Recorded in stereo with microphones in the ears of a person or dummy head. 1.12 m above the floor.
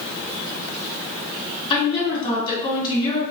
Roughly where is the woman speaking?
Left.